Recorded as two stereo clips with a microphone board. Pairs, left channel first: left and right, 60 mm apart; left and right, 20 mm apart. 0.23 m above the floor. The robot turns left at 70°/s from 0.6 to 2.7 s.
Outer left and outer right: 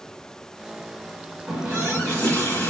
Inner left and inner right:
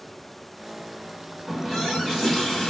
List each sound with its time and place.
1.5 s a running tap: 150° right, 1.6 m; by 2.7 s 125° left, 1.6 m